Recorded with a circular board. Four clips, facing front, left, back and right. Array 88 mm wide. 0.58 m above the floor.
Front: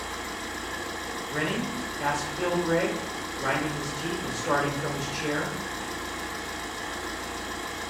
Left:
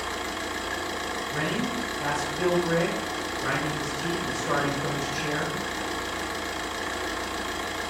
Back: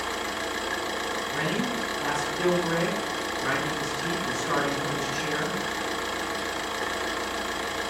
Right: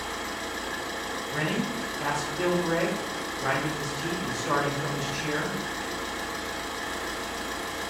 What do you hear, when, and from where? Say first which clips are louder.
0.0 s an engine running: left 2 dB, back 4 dB; 155° left, 0.7 m
1.3 s a man speaking: even, front 1 dB; 10° right, 1.9 m